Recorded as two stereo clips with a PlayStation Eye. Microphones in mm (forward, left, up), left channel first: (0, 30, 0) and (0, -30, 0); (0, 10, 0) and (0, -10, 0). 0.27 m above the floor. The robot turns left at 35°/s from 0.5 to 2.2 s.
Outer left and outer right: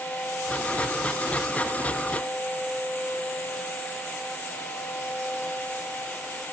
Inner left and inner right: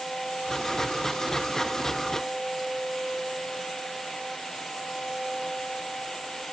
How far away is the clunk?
I don't hear a clunk.